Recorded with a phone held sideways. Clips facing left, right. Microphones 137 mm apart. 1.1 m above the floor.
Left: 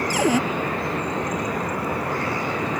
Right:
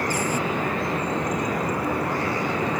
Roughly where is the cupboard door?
Left.